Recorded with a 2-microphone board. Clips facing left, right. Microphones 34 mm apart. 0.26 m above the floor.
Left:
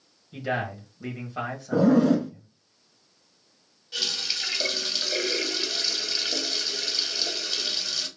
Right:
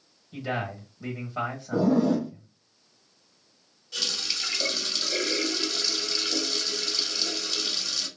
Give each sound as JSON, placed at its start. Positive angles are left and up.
{"t": 0.3, "sound": "a man speaking", "side_deg": 0, "distance_m": 1.1}
{"t": 1.7, "sound": "a zipper", "side_deg": 80, "distance_m": 0.7}
{"t": 3.9, "sound": "a running tap", "side_deg": 15, "distance_m": 0.8}